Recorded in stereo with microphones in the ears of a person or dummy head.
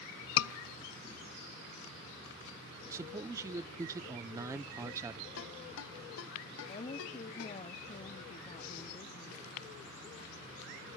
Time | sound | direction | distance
0.4 | a scream | 80° left | 0.7 m
2.9 | a man speaking | 15° right (ahead or behind) | 0.7 m
5.4 | a ringtone | 65° left (ahead or behind) | 1.2 m
6.7 | a woman speaking | 40° left (ahead or behind) | 0.6 m